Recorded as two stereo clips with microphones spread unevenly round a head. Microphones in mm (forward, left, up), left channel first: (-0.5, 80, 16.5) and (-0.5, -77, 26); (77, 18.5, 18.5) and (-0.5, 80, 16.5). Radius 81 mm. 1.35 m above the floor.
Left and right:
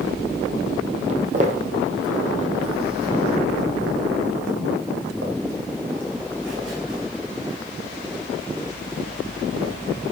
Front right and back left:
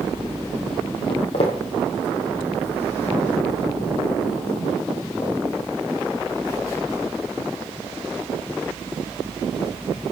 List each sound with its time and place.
1.1 s footsteps: 50° right, 2.5 m; by 9.7 s 105° right, 7 m